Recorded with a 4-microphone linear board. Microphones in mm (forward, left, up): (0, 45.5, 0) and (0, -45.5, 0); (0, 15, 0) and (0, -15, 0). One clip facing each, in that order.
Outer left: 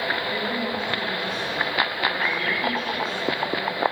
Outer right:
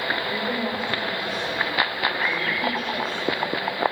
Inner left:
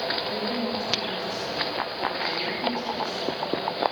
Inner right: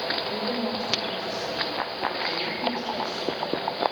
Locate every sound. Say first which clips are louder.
0.3 s a woman speaking: even, even; 5° right (ahead or behind), 5.5 m